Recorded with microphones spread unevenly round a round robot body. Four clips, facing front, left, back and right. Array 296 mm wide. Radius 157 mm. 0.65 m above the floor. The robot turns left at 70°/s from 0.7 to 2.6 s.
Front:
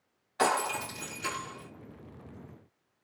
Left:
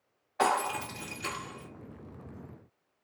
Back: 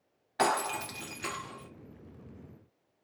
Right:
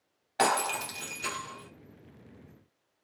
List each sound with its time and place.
0.4 s breaking glass: 135° right, 1.3 m; by 1.7 s 160° left, 1.3 m